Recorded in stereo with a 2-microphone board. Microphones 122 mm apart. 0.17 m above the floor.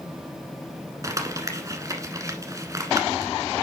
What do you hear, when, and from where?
1.0 s crumpling: 25° right (ahead or behind), 1.2 m